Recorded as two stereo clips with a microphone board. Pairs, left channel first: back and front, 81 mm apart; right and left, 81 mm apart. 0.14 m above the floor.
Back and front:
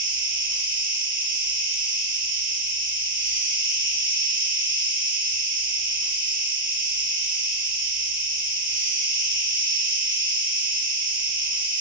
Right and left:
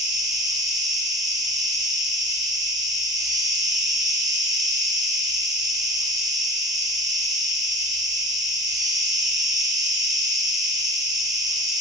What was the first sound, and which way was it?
An insect, 60° left.